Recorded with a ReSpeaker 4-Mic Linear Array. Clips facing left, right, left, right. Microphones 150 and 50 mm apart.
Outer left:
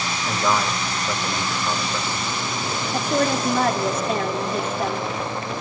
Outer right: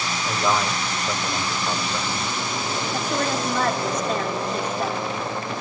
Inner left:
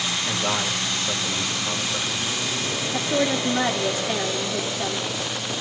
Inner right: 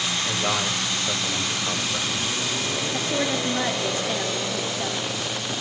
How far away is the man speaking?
About 2.5 m.